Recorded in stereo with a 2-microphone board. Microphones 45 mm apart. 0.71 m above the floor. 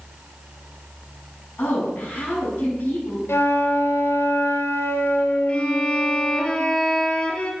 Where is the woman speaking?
55° left (ahead or behind), 7.5 m.